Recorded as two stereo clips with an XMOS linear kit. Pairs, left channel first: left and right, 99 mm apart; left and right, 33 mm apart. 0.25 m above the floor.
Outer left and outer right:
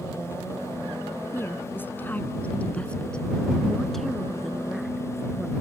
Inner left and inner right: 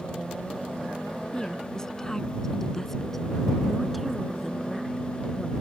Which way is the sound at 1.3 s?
25° left (ahead or behind).